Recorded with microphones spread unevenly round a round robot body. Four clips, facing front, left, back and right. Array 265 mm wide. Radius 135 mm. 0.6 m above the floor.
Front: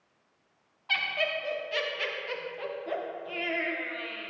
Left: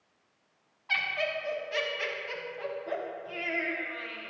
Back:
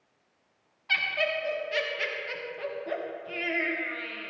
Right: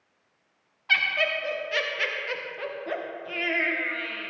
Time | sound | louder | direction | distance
0.9 | laughter | right 5 dB, back 2 dB | 110° right | 0.9 m